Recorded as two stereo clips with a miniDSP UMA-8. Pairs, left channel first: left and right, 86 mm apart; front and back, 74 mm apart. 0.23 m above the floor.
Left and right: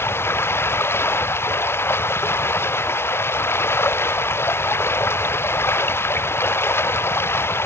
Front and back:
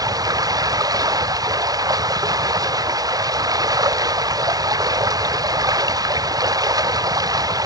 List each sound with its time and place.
0.0 s running water: 150° left